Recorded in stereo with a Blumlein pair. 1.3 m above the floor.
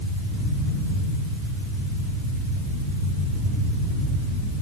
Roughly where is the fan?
Ahead.